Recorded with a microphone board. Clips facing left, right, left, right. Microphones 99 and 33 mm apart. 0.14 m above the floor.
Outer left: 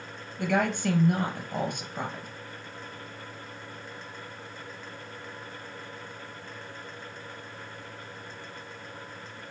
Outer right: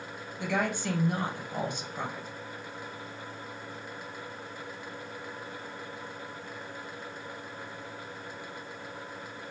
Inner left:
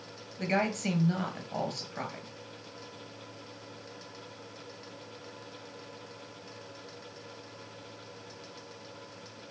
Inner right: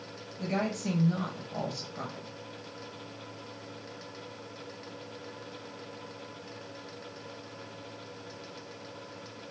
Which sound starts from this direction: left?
A woman speaking, at 0.4 s.